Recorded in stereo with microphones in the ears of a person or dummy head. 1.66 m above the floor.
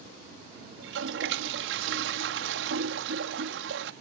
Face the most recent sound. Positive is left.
turn(degrees=-70)  # may be behind; listen again after turning